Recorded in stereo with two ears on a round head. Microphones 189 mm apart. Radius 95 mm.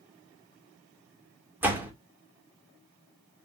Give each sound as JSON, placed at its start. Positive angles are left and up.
{"t": 1.6, "sound": "a door slam", "side_deg": -10, "distance_m": 2.0}